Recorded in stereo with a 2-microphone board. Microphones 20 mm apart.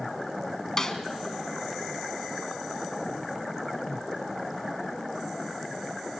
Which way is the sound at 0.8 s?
25° left (ahead or behind).